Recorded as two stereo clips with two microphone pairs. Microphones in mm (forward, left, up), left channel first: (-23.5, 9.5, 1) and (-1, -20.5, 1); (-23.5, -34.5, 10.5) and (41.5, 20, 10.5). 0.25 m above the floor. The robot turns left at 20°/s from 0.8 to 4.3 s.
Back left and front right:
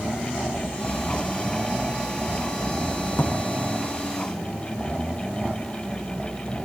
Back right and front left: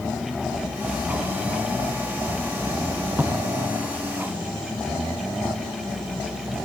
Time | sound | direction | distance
3.1 | a drawer | 120° left | 5 m